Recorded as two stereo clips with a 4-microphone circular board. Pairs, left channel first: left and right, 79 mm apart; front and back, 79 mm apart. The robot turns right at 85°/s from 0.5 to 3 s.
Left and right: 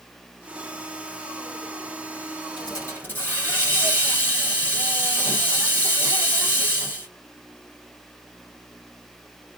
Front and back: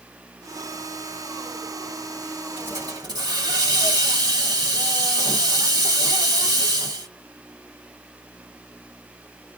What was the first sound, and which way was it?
A hiss, 115° left.